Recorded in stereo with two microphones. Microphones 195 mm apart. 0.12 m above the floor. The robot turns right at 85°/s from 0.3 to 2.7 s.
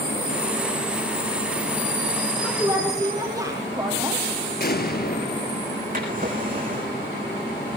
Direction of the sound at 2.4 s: 5° left (ahead or behind).